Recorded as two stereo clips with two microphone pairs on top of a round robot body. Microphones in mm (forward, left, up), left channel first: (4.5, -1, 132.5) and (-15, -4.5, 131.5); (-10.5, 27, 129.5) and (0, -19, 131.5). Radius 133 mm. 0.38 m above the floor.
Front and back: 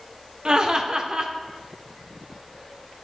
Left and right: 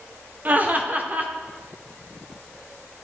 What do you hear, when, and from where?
0.5 s laughter: 125° right, 1.2 m